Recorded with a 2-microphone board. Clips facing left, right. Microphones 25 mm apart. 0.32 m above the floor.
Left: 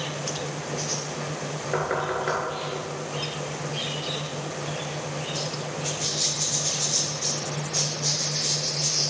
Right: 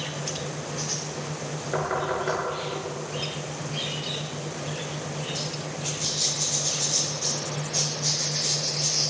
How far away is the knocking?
About 3 m.